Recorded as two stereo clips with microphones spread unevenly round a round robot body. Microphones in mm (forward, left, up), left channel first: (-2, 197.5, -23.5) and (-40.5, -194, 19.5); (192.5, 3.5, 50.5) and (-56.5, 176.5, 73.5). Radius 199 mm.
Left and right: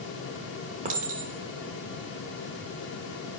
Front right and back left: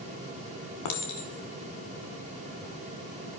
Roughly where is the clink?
Ahead right.